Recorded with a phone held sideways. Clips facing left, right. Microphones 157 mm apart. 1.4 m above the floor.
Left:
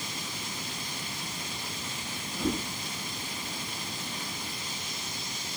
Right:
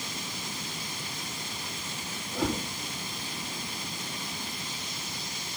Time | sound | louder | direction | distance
2.3 | a whoosh | right 1 dB | 70° right (ahead or behind) | 4 m